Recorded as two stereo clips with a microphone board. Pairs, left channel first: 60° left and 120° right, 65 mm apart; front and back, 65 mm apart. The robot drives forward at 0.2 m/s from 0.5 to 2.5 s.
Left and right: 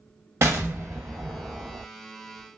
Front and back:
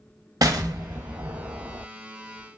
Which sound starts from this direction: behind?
An explosion, at 0.4 s.